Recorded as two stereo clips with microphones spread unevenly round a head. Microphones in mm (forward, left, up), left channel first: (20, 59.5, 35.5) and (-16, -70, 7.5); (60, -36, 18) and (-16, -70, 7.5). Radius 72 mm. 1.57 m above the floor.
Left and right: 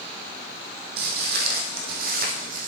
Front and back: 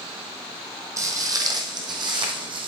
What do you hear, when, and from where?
1.0 s footsteps: 110° right, 2 m; by 2.7 s 140° right, 3 m